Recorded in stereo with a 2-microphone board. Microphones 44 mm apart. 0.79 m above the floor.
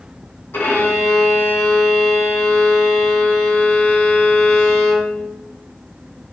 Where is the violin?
60° left (ahead or behind), 0.8 m.